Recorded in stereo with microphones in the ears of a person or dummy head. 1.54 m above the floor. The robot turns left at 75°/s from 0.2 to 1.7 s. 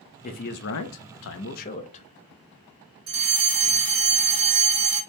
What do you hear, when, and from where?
0.2 s a man speaking: 145° left, 0.6 m; by 2.1 s 35° left, 0.6 m
3.1 s a fire alarm: 20° right (ahead or behind), 1.5 m